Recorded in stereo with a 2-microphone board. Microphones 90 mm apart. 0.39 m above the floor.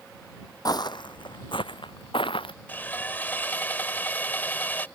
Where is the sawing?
20° left (ahead or behind).